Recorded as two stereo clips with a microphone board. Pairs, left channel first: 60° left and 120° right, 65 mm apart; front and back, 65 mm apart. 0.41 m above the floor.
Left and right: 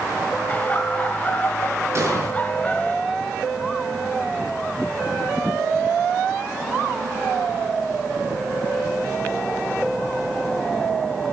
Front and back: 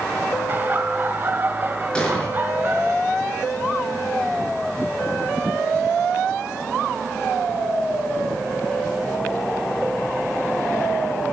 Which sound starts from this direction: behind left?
Laughter, at 0.5 s.